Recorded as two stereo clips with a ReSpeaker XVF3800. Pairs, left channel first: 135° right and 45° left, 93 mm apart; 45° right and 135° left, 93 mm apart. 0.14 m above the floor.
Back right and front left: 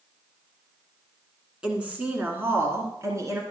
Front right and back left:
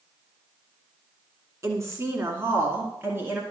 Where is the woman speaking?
120° left, 1.7 m; by 3.4 s 80° left, 2 m.